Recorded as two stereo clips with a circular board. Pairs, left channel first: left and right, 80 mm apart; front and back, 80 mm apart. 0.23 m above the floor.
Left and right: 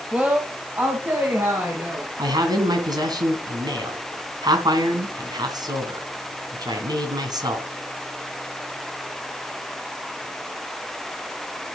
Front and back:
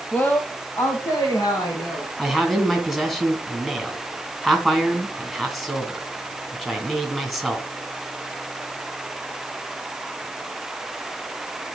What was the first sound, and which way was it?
A woman speaking, 35° right.